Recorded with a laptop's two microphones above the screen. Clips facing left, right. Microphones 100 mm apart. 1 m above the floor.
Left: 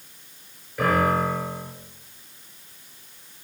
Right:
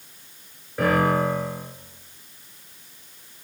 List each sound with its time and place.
0.8 s a piano: 35° right (ahead or behind), 4.5 m